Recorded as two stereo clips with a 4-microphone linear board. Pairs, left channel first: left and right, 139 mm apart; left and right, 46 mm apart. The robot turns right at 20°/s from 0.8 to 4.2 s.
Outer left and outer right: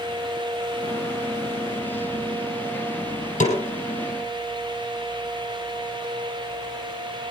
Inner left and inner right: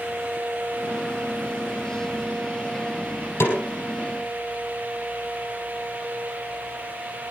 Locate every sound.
3.4 s a snare drum: 60° left (ahead or behind), 4 m; by 3.6 s 55° left (ahead or behind), 4 m